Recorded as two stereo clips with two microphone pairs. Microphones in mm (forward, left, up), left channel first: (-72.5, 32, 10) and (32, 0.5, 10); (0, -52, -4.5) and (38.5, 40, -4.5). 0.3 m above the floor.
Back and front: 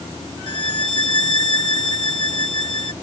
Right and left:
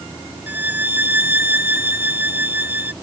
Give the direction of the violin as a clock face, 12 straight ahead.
8 o'clock.